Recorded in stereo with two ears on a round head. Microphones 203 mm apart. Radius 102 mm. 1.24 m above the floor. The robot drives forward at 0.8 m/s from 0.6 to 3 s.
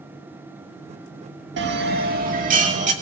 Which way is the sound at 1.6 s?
55° right (ahead or behind).